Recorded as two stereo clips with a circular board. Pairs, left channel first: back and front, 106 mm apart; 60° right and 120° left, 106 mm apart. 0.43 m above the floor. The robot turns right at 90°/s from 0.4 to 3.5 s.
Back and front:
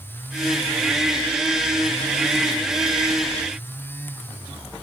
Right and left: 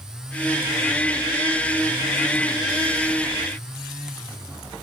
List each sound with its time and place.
Only background noise.